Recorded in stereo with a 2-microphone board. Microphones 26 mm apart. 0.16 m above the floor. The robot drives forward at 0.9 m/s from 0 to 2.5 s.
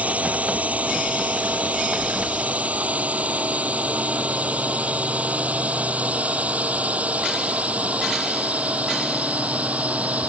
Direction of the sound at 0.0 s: 70° right (ahead or behind).